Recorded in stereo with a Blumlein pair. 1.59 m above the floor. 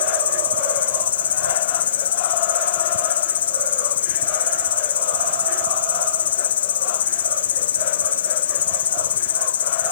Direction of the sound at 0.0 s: 60° left.